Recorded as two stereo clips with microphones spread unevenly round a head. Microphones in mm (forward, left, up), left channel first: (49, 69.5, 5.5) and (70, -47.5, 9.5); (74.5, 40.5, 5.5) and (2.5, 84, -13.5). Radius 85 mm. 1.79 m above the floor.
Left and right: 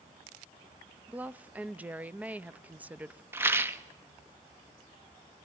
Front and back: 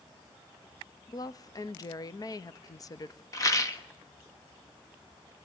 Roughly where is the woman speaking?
Ahead.